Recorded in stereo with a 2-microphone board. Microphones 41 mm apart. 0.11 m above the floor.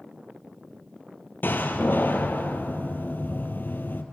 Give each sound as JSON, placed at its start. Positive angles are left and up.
{"t": 1.4, "sound": "a door slam", "side_deg": 55, "distance_m": 2.0}